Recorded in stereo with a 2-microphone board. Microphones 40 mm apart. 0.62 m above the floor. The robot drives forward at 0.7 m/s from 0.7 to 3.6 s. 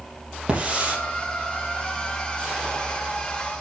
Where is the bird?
No bird in this recording.